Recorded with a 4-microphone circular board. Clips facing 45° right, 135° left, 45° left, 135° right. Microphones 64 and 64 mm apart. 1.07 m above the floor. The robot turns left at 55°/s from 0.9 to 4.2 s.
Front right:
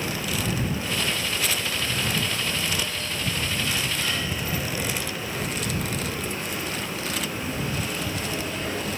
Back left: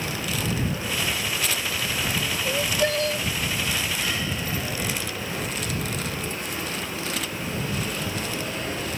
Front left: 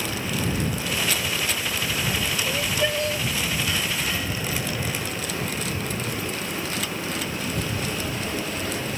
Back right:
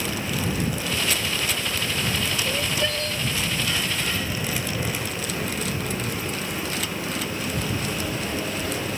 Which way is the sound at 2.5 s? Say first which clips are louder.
Back left 5 dB, front left 1 dB; 140° left.